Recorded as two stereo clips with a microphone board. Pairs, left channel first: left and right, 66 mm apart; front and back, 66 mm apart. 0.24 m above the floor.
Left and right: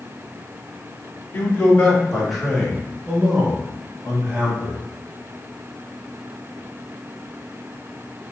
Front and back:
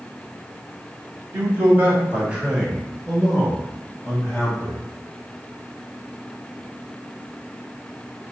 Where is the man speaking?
150° left, 1.2 m; by 4.8 s 55° right, 1.5 m.